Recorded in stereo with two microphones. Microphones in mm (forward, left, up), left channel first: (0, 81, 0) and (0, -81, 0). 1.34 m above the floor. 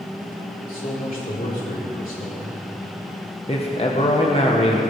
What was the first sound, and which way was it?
A man speaking, 60° left (ahead or behind).